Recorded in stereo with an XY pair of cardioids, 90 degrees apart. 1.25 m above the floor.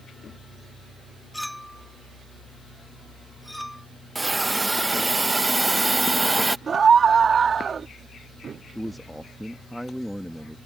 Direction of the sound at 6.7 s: 50° right.